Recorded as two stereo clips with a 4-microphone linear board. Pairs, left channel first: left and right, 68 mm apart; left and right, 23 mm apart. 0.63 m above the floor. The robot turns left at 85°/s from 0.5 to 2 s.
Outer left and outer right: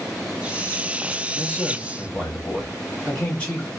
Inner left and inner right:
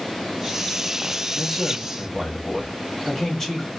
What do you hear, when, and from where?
1.4 s a man speaking: 20° left (ahead or behind), 1.1 m